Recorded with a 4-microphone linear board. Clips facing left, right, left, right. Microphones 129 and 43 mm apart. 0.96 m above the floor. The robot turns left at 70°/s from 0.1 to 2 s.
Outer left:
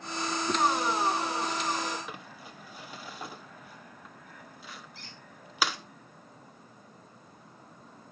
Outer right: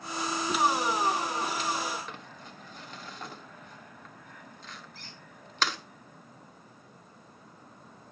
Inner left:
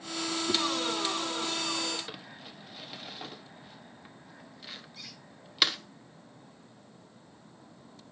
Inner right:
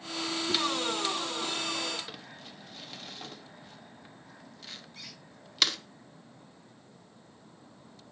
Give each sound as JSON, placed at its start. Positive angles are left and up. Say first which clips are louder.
{"t": 0.5, "sound": "a whoosh", "louder": "outer left 1 dB, inner left 1 dB", "side_deg": 30, "distance_m": 1.2}
{"t": 2.1, "sound": "crumpling", "louder": "outer left 1 dB, inner left 1 dB", "side_deg": 10, "distance_m": 0.9}
{"t": 5.0, "sound": "a squeak", "louder": "even, even", "side_deg": -45, "distance_m": 5.0}